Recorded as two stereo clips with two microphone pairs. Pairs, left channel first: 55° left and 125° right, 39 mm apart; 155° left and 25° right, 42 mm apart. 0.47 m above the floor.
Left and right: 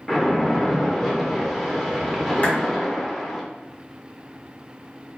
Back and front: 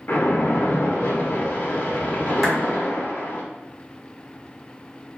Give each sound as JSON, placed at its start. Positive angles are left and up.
{"t": 0.1, "sound": "a splash", "azimuth_deg": 140, "distance_m": 0.6}
{"t": 2.4, "sound": "a clap", "azimuth_deg": 60, "distance_m": 1.2}